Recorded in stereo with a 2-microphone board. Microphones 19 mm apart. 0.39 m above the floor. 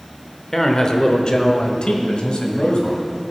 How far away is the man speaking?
About 1.0 m.